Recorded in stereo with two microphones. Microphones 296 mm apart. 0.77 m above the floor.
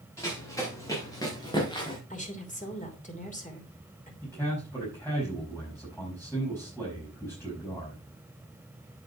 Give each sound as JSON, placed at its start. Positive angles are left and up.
{"t": 0.2, "sound": "running footsteps", "side_deg": 10, "distance_m": 6.0}
{"t": 2.1, "sound": "a woman speaking", "side_deg": 25, "distance_m": 2.5}
{"t": 4.2, "sound": "a man speaking", "side_deg": 10, "distance_m": 5.0}